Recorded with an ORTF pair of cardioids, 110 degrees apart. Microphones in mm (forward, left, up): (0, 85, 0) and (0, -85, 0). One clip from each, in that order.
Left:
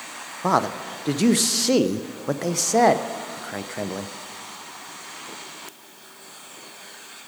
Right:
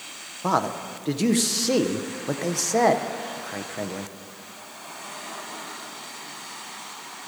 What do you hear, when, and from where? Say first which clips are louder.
0.4 s a man speaking: left 2 dB; 15° left, 0.5 m